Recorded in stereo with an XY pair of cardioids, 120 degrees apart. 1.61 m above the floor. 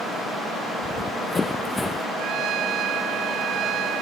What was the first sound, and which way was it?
Running footsteps, 30° left.